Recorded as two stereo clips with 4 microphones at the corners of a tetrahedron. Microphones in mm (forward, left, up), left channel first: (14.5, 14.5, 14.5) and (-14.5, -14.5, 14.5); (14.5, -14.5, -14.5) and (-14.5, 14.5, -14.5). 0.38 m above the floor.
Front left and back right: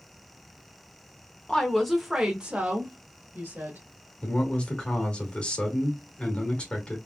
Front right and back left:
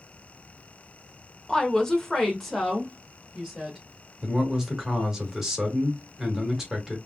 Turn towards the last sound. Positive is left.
turn(degrees=70)